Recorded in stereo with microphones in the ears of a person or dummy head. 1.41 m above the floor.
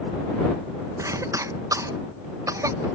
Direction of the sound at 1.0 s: 20° right (ahead or behind).